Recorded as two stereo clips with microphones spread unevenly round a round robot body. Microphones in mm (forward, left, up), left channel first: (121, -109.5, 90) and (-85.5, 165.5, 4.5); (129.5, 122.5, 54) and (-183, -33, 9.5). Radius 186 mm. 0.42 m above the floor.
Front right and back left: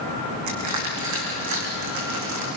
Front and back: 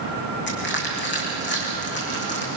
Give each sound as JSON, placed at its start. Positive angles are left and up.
{"t": 0.5, "sound": "crushing", "azimuth_deg": 85, "distance_m": 6.5}